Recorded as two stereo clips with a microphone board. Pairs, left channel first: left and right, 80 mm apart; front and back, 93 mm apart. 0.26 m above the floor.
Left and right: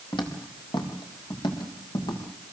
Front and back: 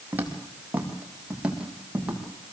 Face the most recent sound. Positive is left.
turn(degrees=100)